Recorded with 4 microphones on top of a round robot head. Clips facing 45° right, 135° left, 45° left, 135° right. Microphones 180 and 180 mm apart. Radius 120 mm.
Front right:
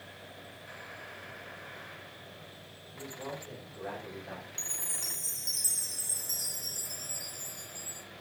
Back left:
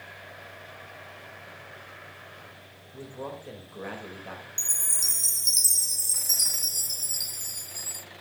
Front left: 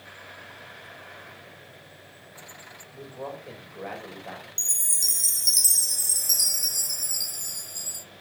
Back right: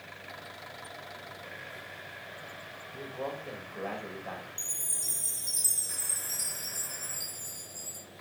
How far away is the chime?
About 0.7 m.